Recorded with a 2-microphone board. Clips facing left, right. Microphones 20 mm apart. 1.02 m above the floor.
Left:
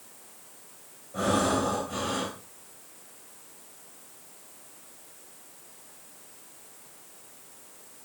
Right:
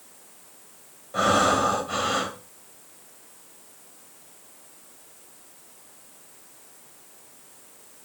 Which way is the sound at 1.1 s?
50° right (ahead or behind).